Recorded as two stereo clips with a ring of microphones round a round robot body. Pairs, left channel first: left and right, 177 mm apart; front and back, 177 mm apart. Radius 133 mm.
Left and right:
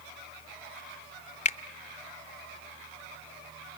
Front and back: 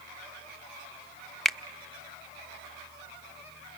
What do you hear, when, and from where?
1.4 s a finger snap: 90° left, 0.8 m